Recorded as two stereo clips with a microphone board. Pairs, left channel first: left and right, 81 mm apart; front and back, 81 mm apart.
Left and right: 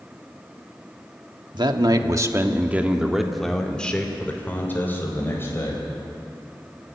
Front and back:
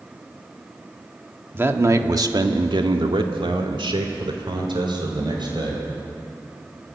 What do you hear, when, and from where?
1.5 s a man speaking: 115° right, 1.7 m; by 5.8 s 150° left, 4 m